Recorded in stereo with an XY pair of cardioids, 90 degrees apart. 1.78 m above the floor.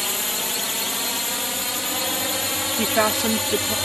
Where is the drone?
15° left; by 3.9 s 10° left.